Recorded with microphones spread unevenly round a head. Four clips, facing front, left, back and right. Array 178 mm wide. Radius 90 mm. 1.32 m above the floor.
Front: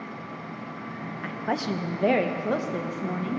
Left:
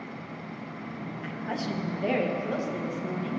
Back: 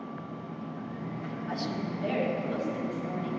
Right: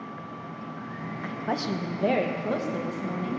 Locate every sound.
1.2 s a woman speaking: 30° right, 1.3 m; by 3.4 s 10° right, 2 m